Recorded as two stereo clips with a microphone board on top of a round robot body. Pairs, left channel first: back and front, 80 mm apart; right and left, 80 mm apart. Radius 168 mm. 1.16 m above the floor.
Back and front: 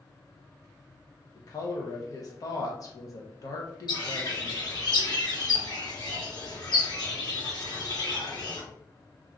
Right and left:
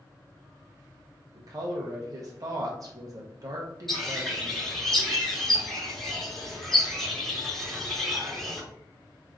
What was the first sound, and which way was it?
A woman speaking, 135° left.